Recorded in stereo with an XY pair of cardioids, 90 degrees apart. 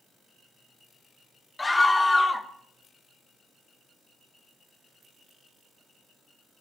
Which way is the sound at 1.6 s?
20° left.